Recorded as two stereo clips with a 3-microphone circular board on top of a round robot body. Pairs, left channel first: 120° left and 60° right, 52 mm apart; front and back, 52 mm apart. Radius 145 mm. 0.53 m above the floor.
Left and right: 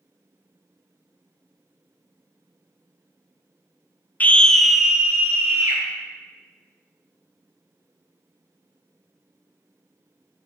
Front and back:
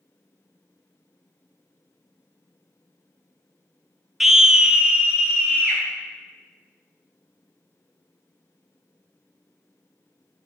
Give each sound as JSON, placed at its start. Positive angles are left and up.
{"t": 4.2, "sound": "a scream", "azimuth_deg": 100, "distance_m": 0.6}